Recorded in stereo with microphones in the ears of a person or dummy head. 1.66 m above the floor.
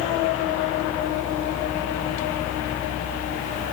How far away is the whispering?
No whispering in this recording.